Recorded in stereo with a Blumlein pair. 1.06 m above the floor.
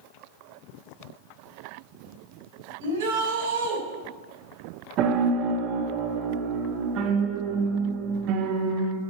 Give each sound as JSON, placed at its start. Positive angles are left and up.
{"t": 2.8, "sound": "a shout", "azimuth_deg": -50, "distance_m": 5.5}
{"t": 5.0, "sound": "a piano", "azimuth_deg": -35, "distance_m": 1.3}